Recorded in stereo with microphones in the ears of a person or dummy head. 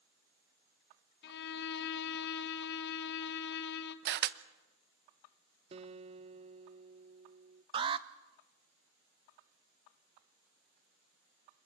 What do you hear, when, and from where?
1.2 s a violin: 60° left (ahead or behind), 1.2 m
4.0 s a camera shutter: 55° right (ahead or behind), 0.8 m
5.7 s a guitar: 30° right (ahead or behind), 0.5 m
7.7 s an alarm: 25° right (ahead or behind), 0.5 m